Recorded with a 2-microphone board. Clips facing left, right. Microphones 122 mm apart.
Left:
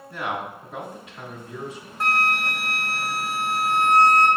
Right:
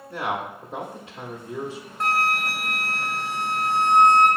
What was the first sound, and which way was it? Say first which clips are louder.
A man speaking: right 1 dB; 30° right (ahead or behind).